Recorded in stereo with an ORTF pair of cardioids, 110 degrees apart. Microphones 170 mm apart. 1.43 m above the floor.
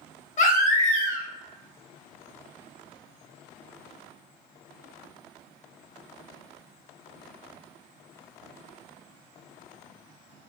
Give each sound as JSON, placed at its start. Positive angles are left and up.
{"t": 0.4, "sound": "a baby crying", "azimuth_deg": 50, "distance_m": 0.9}